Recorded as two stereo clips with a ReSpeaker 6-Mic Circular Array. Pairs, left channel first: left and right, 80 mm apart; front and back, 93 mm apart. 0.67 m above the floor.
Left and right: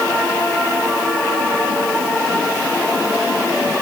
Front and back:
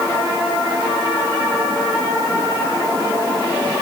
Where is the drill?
No drill in this recording.